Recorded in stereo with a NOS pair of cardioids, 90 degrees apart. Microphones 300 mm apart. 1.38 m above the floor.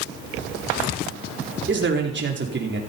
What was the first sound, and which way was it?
A man speaking, 40° right.